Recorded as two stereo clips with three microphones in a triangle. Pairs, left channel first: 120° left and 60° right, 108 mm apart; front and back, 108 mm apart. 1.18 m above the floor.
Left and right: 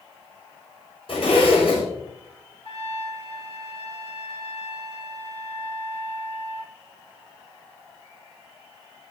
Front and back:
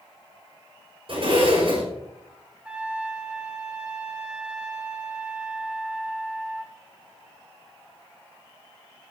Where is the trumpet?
100° left, 2 m.